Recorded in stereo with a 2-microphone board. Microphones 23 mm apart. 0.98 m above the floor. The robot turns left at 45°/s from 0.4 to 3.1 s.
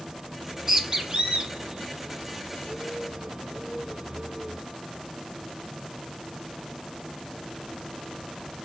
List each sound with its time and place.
0.4 s a bird: 5° right (ahead or behind), 1.3 m; by 4.6 s 40° right (ahead or behind), 1.3 m